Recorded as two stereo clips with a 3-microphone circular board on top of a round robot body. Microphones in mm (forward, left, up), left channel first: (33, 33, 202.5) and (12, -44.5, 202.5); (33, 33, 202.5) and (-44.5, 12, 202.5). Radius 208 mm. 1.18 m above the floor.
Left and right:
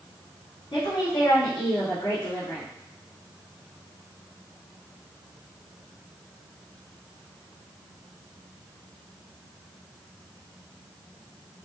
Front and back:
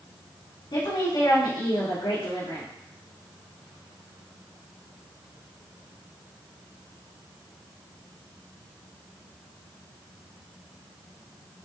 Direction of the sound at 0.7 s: 45° left.